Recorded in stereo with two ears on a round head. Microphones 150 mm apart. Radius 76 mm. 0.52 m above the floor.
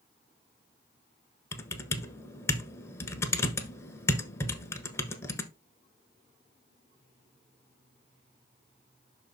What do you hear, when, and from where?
1.5 s typing on a keyboard: 15° left (ahead or behind), 1.1 m